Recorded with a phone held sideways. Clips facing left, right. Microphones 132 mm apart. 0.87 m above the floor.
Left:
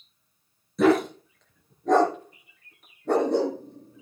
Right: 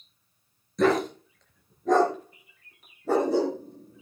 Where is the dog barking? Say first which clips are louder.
Left 3 dB; 5° left (ahead or behind), 3.5 m; by 4.0 s 5° right (ahead or behind), 5 m.